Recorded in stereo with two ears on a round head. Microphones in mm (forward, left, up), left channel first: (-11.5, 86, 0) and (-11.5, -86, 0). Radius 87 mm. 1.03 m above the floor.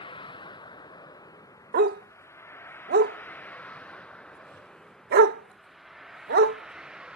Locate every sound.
0.0 s a vehicle: 25° left (ahead or behind); by 7.2 s 5° right (ahead or behind)
1.7 s a dog barking: 55° right (ahead or behind)